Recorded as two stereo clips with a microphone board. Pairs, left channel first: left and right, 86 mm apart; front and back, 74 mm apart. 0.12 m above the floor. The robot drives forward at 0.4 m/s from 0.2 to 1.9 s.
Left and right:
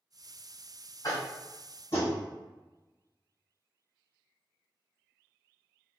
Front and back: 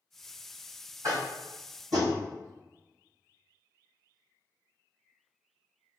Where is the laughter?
I don't hear laughter.